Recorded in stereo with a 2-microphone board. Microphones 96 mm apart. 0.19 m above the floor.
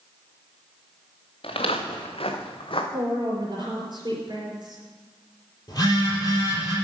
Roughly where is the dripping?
I don't hear dripping.